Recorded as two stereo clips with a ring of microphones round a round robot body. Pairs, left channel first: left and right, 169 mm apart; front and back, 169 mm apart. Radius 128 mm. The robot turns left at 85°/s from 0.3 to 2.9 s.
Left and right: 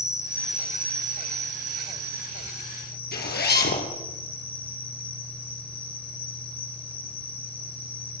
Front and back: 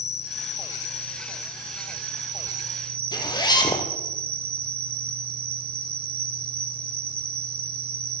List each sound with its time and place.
0.0 s an insect: 15° left, 3.5 m; by 8.2 s 155° left, 3.5 m
3.1 s a zipper: 65° left, 5 m